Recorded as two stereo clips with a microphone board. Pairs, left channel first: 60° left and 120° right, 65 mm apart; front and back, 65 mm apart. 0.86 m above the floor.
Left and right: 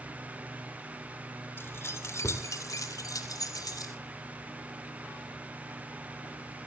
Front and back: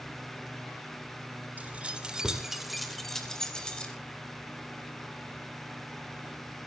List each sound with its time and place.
1.6 s keys jangling: 115° left, 2.5 m; by 3.9 s 75° left, 3.5 m